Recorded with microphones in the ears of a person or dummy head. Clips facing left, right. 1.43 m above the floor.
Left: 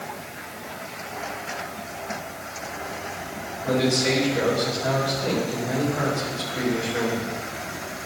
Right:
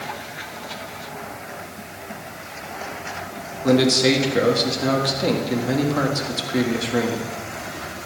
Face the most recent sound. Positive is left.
turn(degrees=-80)